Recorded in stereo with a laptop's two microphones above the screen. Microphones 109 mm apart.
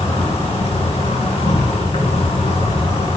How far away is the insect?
About 2.5 m.